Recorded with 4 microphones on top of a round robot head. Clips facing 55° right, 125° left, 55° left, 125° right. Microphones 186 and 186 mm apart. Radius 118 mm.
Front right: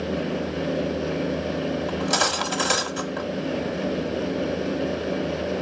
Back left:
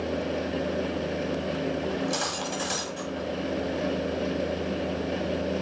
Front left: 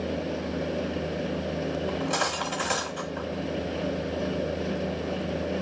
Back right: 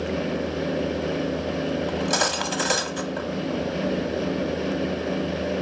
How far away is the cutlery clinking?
About 1.4 m.